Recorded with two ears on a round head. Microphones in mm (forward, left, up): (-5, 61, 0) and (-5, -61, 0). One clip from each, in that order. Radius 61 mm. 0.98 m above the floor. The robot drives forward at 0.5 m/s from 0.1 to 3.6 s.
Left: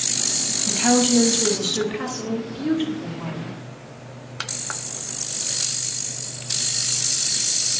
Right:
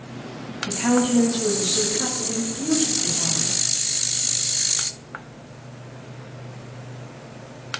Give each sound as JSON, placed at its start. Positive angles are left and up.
{"t": 0.7, "sound": "a woman speaking", "side_deg": 65, "distance_m": 1.5}